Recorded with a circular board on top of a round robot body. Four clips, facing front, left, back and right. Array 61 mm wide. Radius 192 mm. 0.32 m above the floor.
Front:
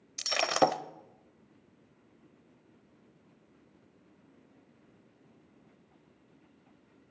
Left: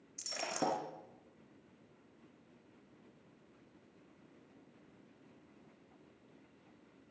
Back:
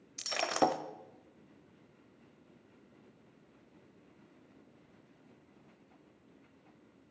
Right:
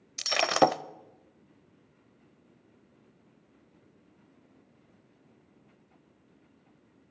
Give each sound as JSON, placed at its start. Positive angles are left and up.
{"t": 0.2, "sound": "breaking glass", "azimuth_deg": -70, "distance_m": 0.8}